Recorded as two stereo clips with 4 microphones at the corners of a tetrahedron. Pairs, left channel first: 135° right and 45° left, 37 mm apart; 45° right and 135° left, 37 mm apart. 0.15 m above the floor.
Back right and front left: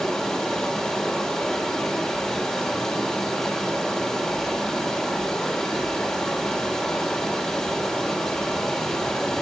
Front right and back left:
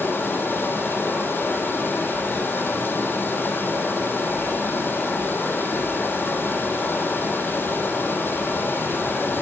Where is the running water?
60° right, 4 m.